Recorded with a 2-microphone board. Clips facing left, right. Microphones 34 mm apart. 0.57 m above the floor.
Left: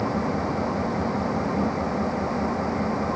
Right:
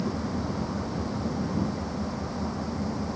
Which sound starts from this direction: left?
An engine running, at 0.0 s.